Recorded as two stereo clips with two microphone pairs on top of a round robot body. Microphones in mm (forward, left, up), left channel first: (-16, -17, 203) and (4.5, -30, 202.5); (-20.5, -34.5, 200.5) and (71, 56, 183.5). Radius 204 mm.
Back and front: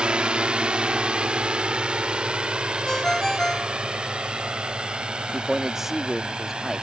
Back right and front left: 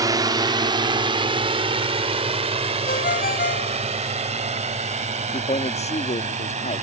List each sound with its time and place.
0.0 s a drone: straight ahead; by 6.8 s 20° left
2.9 s a ringtone: 145° right
5.3 s a man speaking: 105° right